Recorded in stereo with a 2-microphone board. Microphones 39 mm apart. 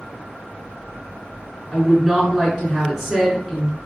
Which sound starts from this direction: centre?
A woman speaking, at 1.7 s.